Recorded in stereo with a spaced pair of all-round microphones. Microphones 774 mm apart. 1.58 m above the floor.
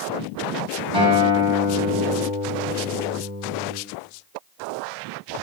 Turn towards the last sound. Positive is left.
turn(degrees=-30)  # may be behind; listen again after turning